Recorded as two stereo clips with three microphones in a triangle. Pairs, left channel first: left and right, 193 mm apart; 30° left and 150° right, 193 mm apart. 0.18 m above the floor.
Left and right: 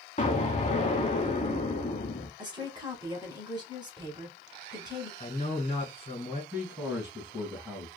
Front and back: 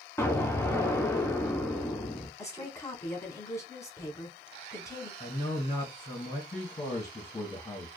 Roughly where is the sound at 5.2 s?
Left.